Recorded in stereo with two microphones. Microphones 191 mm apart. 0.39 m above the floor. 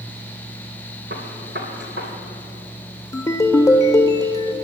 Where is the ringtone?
15° left (ahead or behind), 0.7 m.